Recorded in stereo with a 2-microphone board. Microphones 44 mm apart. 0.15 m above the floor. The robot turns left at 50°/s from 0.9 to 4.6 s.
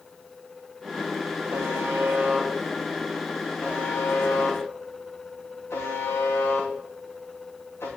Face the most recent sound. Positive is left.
turn(degrees=75)  # may be behind; listen again after turning